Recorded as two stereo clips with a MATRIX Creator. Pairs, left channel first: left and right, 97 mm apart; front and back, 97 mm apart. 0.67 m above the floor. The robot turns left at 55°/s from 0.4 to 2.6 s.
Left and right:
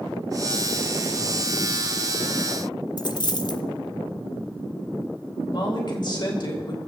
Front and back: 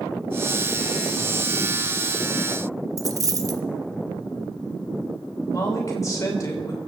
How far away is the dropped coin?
About 0.7 m.